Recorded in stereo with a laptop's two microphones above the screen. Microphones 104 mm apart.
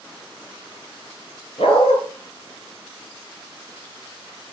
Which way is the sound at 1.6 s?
70° left (ahead or behind).